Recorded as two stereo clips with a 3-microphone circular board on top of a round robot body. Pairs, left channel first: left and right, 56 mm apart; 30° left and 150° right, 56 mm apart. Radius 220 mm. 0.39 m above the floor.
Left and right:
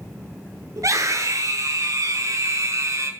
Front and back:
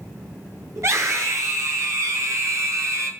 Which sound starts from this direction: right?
A scream, at 0.8 s.